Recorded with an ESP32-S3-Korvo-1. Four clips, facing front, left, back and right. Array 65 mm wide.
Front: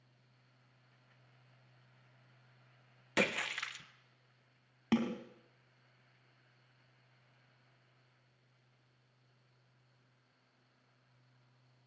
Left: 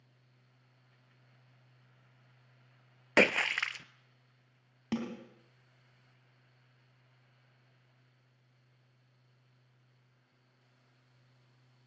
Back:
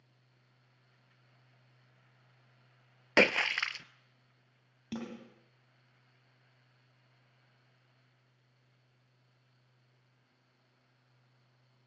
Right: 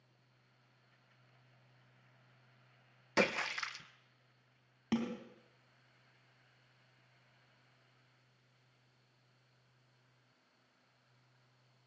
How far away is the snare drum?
About 3 m.